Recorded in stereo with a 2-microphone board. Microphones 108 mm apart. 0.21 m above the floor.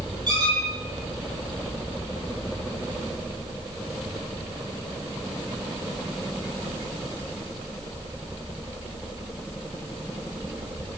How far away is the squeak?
About 4 m.